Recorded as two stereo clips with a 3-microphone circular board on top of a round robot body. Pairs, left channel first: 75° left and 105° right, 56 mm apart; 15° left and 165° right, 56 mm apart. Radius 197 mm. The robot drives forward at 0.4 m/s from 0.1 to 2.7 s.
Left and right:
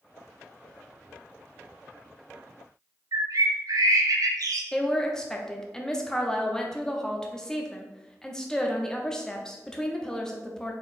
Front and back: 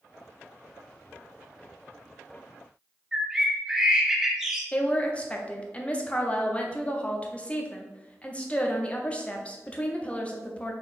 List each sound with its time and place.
3.1 s a bird: 85° right, 0.5 m
4.7 s a woman speaking: 15° left, 1.0 m